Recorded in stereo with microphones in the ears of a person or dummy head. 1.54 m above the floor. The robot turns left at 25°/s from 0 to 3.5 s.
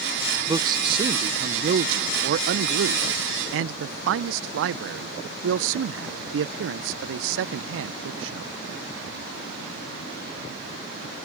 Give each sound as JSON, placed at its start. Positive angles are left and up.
{"t": 0.5, "sound": "a man speaking", "azimuth_deg": -30}